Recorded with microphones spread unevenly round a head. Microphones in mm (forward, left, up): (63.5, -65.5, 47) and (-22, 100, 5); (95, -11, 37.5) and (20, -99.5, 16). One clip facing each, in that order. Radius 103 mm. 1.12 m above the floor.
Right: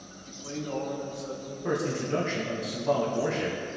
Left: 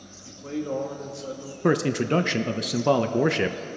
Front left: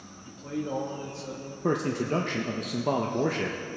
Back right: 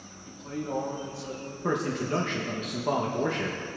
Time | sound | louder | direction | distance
0.2 | a man speaking | left 6 dB, front left 2 dB | 90° left | 1.9 m
1.6 | a man speaking | left 7 dB, front left 2 dB | 120° left | 0.6 m